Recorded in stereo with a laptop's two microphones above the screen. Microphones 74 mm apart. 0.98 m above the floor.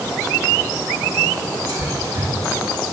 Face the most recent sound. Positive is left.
turn(degrees=-60)  # may be behind; listen again after turning